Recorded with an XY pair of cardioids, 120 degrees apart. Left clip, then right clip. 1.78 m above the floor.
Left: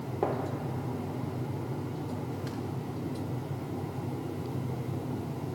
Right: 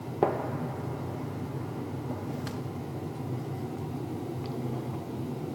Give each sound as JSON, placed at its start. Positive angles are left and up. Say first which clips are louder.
{"t": 0.2, "sound": "a gunshot", "louder": "right 4 dB", "azimuth_deg": -30, "distance_m": 3.0}